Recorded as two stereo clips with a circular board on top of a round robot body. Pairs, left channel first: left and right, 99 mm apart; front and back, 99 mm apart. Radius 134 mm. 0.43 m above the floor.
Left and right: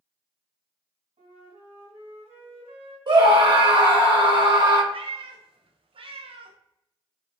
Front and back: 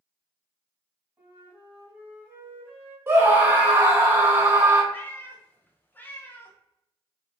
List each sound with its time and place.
1.2 s a flute: 110° right, 1.6 m
3.1 s a scream: 125° right, 1.9 m
4.9 s a cat meowing: 70° right, 0.7 m